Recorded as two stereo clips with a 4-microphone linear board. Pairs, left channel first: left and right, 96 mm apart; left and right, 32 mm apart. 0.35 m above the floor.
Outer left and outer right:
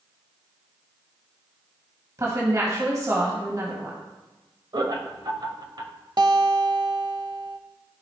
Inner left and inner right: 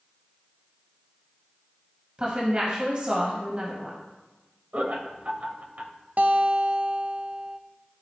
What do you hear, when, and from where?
2.2 s a woman speaking: 35° right (ahead or behind), 1.9 m
4.7 s laughter: 45° right (ahead or behind), 1.2 m
6.2 s a guitar: 50° right (ahead or behind), 0.6 m